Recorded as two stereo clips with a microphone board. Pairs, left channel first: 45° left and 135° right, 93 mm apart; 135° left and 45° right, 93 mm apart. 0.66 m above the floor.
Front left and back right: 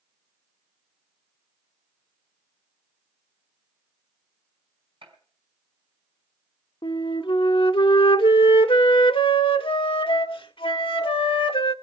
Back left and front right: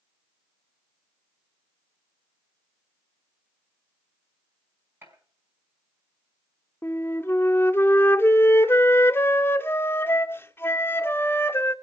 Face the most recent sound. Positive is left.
turn(degrees=70)